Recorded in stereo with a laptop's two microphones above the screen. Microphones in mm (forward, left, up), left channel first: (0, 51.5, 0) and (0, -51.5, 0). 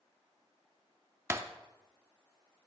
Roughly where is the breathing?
I don't hear breathing.